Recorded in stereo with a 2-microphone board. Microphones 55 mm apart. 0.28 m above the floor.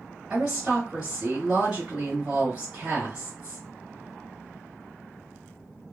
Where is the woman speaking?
25° right (ahead or behind), 1.6 m.